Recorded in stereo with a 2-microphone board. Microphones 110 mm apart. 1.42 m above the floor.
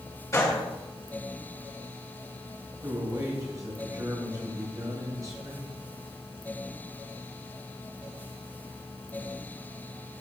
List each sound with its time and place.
0.3 s a gunshot: 30° left (ahead or behind), 1.6 m
2.8 s a man speaking: 35° right (ahead or behind), 2.5 m